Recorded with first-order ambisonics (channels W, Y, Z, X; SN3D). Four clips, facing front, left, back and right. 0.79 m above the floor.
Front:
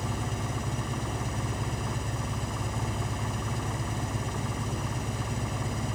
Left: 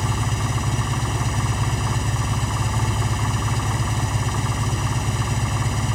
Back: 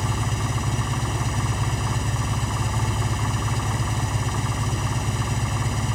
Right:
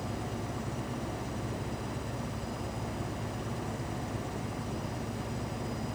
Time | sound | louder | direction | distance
0.0 | an engine running | left 11 dB, back 6 dB | 120° left | ?